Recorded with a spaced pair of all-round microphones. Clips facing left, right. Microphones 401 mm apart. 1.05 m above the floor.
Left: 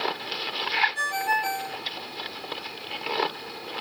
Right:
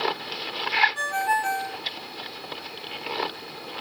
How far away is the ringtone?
About 5 m.